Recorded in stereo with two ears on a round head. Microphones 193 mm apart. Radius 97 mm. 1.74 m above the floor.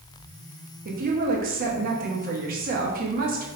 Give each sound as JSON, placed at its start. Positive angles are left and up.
{"t": 0.8, "sound": "a woman speaking", "side_deg": -45, "distance_m": 1.0}